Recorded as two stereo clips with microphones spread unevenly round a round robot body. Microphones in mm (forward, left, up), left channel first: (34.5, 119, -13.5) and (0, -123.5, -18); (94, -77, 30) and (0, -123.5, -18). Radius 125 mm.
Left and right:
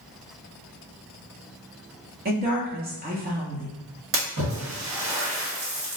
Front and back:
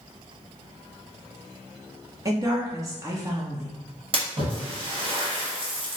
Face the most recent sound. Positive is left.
turn(degrees=-140)